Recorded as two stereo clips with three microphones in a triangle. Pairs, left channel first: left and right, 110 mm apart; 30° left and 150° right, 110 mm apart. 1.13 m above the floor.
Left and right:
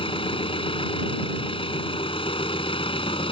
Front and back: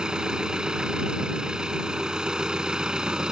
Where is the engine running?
125° left.